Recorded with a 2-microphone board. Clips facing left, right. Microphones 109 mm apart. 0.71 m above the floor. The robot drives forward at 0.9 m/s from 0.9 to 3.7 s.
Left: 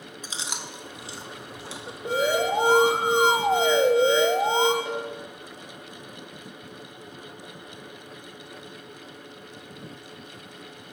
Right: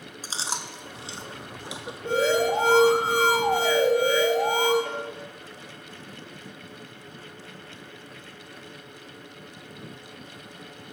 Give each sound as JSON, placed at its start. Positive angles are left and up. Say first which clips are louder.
{"t": 0.2, "sound": "chewing", "louder": "right 3 dB", "side_deg": -35, "distance_m": 0.7}
{"t": 2.0, "sound": "an alarm", "louder": "right 1 dB", "side_deg": 15, "distance_m": 1.9}
{"t": 4.8, "sound": "a cowbell", "louder": "left 2 dB", "side_deg": 5, "distance_m": 2.5}